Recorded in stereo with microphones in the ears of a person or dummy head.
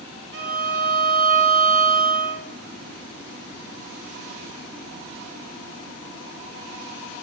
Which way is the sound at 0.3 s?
70° right (ahead or behind).